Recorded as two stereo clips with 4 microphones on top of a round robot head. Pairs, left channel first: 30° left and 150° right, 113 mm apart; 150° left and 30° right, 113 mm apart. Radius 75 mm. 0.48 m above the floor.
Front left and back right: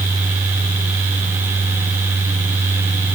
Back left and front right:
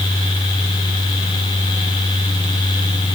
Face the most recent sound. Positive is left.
No sound to turn to.